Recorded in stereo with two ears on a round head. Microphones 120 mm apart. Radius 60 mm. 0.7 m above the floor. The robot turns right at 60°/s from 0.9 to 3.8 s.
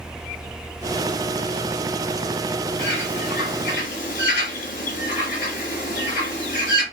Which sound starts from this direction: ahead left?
A bird, at 2.8 s.